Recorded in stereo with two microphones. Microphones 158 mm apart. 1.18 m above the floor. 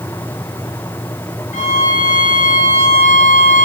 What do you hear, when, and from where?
1.5 s a violin: 50° left (ahead or behind), 1.0 m